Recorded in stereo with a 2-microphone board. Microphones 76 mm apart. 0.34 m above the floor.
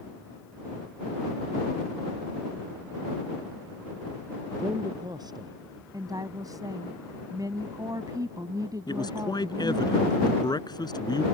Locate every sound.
4.6 s a man speaking: 60° right (ahead or behind)
5.9 s a woman speaking: 55° right (ahead or behind)
8.9 s a man speaking: 65° left (ahead or behind)